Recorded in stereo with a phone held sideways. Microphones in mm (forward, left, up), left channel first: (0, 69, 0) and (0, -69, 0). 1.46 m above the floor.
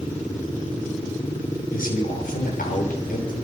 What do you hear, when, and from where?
1.7 s a man speaking: 85° left, 6 m